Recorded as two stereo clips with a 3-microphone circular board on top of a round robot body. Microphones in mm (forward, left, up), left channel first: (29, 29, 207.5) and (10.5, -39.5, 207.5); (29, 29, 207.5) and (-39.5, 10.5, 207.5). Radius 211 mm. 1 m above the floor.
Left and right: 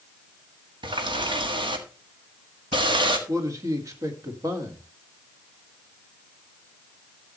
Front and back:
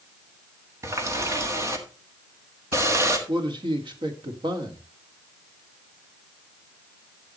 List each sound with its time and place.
0.8 s a running tap: 110° right, 1.7 m
3.3 s a man speaking: 155° right, 2 m